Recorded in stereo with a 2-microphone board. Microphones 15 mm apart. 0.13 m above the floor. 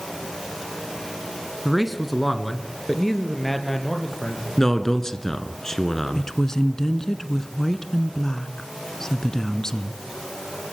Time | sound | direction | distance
1.6 | a man speaking | 15° right (ahead or behind) | 1.2 m
4.6 | a man speaking | 30° left (ahead or behind) | 1.4 m
6.2 | a woman speaking | 30° left (ahead or behind) | 1.2 m